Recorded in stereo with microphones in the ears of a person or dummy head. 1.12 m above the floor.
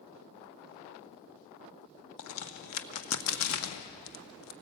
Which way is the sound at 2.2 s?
80° left.